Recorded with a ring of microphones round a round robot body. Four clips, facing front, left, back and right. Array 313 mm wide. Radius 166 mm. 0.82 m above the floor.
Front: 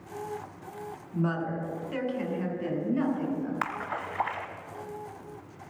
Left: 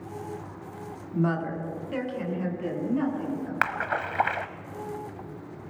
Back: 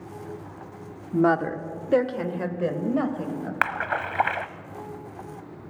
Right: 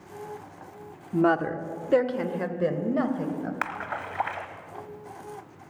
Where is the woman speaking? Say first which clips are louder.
Right 5 dB, back 9 dB; 145° right, 1.6 m; by 3.5 s 130° right, 4 m.